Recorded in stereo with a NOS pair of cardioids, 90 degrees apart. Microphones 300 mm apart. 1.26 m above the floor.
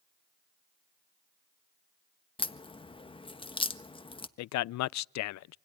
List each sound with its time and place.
2.4 s a crack: 15° left, 1.4 m
4.4 s a man speaking: 65° left, 0.5 m